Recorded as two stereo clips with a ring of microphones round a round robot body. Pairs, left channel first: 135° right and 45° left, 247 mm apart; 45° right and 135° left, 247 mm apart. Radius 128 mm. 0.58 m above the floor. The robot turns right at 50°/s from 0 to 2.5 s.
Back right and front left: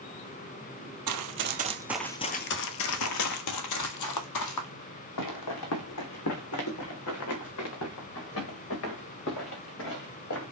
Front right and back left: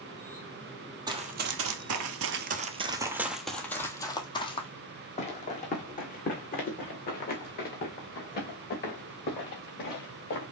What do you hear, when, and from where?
1.1 s running footsteps: 60° left, 1.2 m; by 10.4 s 95° right, 5 m